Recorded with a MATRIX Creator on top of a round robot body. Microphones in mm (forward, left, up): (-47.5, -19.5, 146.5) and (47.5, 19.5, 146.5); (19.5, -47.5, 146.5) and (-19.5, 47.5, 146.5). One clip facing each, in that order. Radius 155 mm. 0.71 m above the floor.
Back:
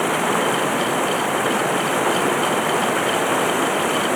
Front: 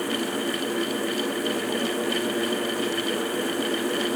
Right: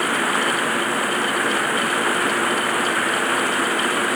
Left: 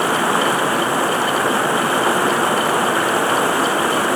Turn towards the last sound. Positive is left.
turn(degrees=175)